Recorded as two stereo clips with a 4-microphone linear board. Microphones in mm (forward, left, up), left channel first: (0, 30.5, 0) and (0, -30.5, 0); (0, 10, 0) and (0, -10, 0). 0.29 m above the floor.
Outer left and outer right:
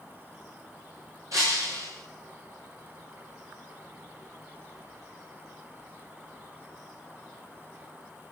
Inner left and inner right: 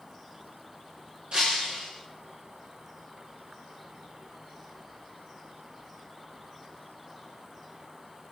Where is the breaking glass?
55° right (ahead or behind), 5.5 m.